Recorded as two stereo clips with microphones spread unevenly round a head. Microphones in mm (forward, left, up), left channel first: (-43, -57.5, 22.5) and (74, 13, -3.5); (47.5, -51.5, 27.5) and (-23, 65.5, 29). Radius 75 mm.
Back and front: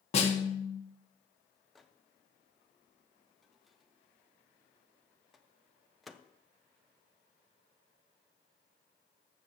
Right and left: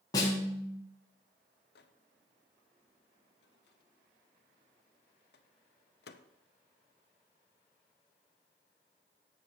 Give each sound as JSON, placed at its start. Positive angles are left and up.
{"t": 0.1, "sound": "a snare drum", "azimuth_deg": -125, "distance_m": 1.1}
{"t": 1.8, "sound": "a microwave", "azimuth_deg": -65, "distance_m": 0.5}